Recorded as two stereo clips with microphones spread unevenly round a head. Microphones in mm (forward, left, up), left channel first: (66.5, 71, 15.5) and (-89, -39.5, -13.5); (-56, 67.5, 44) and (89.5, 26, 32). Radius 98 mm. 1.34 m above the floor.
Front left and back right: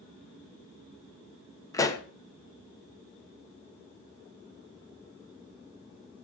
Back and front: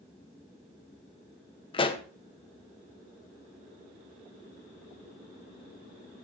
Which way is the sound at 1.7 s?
110° left.